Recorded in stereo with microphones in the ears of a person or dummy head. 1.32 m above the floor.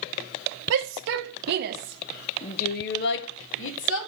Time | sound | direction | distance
0.7 | a shout | 75° right (ahead or behind) | 1.8 m